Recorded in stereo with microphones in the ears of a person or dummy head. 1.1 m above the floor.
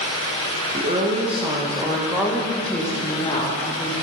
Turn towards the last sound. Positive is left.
turn(degrees=30)  # may be behind; listen again after turning